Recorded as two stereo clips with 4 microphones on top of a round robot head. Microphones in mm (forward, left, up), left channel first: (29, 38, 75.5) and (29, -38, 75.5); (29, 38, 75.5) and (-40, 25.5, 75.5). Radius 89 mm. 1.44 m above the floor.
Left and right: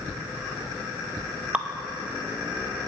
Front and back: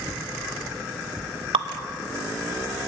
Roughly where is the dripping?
Behind.